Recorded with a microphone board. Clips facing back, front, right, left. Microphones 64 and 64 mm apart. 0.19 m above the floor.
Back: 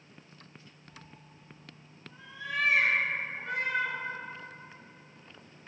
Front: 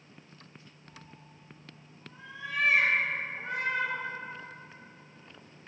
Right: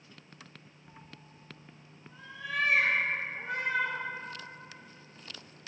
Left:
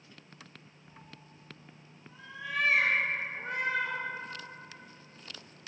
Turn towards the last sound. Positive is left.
turn(degrees=55)